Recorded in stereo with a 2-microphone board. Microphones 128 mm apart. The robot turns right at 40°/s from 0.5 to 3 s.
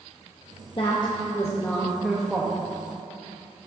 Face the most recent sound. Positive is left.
turn(degrees=-140)